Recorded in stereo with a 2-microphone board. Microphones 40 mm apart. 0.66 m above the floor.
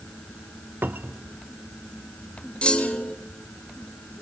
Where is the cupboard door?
65° right (ahead or behind), 0.9 m.